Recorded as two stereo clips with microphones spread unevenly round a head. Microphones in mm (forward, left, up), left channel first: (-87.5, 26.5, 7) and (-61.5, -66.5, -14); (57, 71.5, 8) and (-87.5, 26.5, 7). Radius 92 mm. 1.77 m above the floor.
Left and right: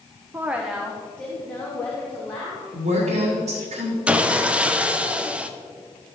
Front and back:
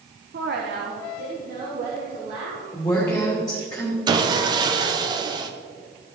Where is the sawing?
165° right, 0.8 m.